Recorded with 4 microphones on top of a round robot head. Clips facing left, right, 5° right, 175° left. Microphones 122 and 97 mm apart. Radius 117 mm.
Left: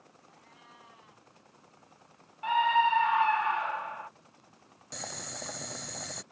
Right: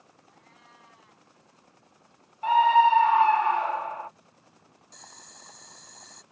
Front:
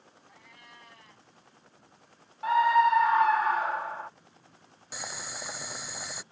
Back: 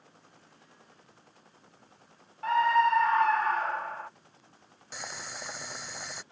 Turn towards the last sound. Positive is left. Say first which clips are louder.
# left 11 dB, front 1 dB
turn(degrees=80)